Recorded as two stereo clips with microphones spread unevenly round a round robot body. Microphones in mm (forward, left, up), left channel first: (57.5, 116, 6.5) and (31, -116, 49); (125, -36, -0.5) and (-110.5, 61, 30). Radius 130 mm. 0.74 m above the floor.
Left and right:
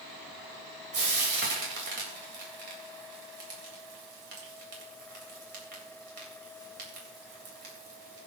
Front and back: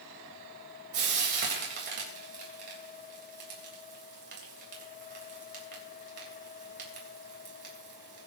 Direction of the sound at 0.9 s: 150° right.